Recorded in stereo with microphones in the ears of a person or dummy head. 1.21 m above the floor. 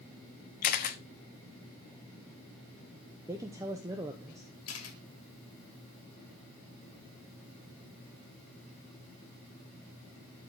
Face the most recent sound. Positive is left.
turn(degrees=75)  # may be behind; listen again after turning